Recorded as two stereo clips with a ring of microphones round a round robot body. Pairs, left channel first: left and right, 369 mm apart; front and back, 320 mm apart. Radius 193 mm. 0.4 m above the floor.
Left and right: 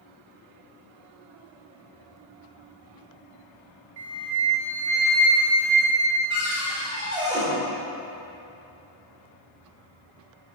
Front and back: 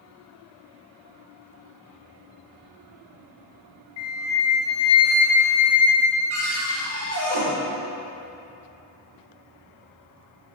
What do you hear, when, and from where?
4.0 s a flute: 45° right, 1.1 m
6.3 s a cupboard door: 165° right, 2 m